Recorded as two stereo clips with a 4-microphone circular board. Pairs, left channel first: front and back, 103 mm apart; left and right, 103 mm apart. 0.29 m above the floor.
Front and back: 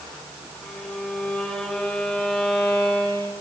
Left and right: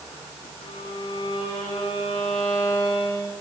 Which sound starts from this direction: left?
A violin, at 0.6 s.